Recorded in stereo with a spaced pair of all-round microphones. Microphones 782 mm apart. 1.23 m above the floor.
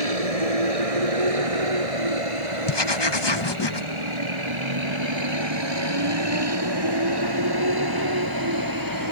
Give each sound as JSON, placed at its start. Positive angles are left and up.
{"t": 0.0, "sound": "a vehicle", "side_deg": -50}
{"t": 2.7, "sound": "writing", "side_deg": 35}